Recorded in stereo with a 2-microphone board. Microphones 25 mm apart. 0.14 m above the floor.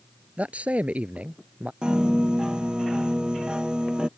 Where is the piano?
35° right (ahead or behind).